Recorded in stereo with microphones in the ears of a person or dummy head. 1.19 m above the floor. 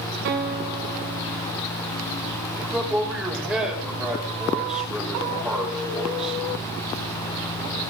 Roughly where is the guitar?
Right.